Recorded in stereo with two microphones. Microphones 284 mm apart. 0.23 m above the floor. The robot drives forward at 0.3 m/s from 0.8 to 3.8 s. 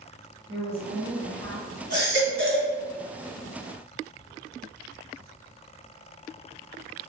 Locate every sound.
0.5 s a woman speaking: 50° right (ahead or behind), 1.8 m; by 1.7 s 55° right (ahead or behind), 1.7 m
1.9 s a baby crying: 40° right (ahead or behind), 1.5 m; by 2.7 s 45° right (ahead or behind), 1.4 m